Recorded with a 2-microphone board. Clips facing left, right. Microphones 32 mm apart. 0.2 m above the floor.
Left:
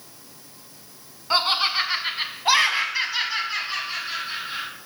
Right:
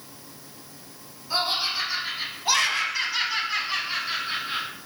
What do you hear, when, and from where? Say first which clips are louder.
1.3 s laughter: left 5 dB; 50° left (ahead or behind), 1.5 m; by 4.7 s 20° right (ahead or behind), 1.5 m